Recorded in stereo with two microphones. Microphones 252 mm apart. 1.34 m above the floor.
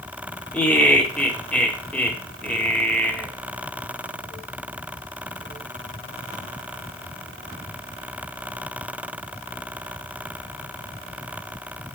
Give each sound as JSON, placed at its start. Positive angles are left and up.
{"t": 0.5, "sound": "laughter", "side_deg": 5, "distance_m": 1.6}